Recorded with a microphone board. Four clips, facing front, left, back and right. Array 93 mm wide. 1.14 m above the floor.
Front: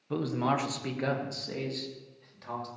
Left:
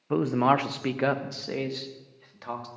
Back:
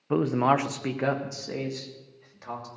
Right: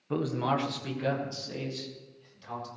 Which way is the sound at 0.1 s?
155° left.